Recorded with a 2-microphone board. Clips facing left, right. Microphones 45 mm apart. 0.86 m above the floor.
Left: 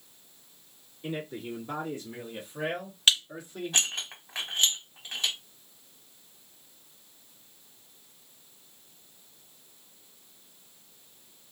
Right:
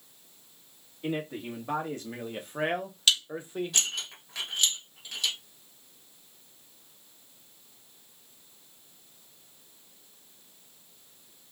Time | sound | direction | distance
1.0 | a man speaking | 65° right (ahead or behind) | 1.8 m
3.1 | dishes clattering | 35° left (ahead or behind) | 1.0 m